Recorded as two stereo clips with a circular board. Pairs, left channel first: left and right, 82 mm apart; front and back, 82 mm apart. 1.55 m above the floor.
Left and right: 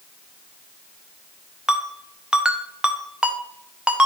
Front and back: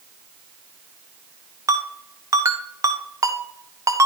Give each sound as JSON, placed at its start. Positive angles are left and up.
{"t": 1.7, "sound": "a ringtone", "azimuth_deg": -165, "distance_m": 0.7}